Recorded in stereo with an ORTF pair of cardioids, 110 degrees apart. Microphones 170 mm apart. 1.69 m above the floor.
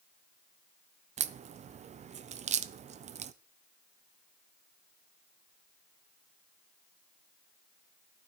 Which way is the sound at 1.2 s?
40° right.